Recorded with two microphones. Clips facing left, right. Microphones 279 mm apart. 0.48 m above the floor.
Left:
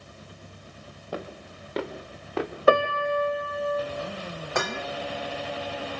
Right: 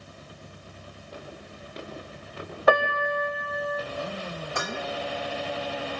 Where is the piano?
30° left (ahead or behind), 1.8 m.